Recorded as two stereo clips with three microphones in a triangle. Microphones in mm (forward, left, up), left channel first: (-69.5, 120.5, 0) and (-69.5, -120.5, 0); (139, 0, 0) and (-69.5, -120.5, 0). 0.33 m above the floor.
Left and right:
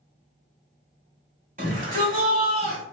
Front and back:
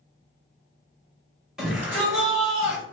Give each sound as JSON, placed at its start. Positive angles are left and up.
{"t": 1.6, "sound": "a shout", "azimuth_deg": -65, "distance_m": 1.7}